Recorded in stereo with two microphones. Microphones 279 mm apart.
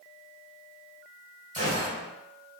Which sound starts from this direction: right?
A gunshot, at 1.5 s.